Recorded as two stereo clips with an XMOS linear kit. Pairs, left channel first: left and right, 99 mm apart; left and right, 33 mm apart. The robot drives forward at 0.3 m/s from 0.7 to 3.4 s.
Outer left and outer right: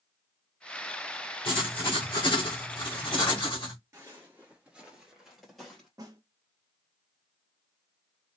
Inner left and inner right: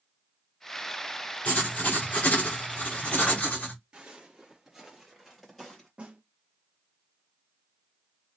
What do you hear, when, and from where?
1.4 s writing: 60° left (ahead or behind), 2.5 m; by 3.7 s 50° left (ahead or behind), 2.5 m
3.9 s footsteps: 25° right (ahead or behind), 1.7 m; by 5.9 s 5° left (ahead or behind), 2.5 m
6.0 s a snare drum: 35° right (ahead or behind), 1.0 m